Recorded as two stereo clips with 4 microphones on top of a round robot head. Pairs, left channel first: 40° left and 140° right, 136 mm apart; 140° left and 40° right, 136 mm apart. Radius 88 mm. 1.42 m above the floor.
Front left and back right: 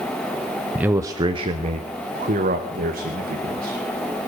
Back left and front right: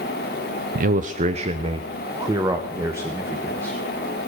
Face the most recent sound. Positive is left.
turn(degrees=-115)